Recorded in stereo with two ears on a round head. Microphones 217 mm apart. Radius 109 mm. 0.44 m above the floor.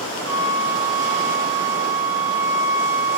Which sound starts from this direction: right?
A flute, at 0.2 s.